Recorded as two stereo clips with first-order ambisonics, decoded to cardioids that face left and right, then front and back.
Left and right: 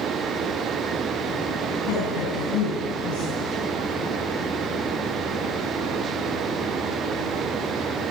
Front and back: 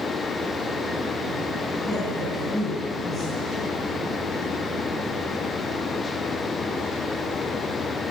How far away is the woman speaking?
About 5.5 m.